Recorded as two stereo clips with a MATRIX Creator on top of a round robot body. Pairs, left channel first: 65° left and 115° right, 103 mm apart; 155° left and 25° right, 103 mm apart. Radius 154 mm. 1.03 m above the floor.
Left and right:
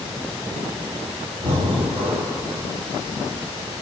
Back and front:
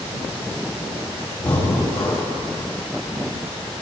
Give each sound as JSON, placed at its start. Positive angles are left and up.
{"t": 1.4, "sound": "breathing", "azimuth_deg": -130, "distance_m": 2.5}